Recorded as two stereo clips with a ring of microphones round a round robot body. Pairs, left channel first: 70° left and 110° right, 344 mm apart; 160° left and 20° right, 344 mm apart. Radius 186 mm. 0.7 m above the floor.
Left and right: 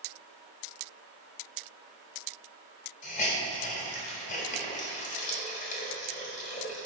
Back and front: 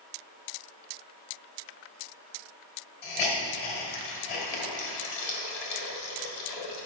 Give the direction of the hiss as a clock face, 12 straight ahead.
7 o'clock.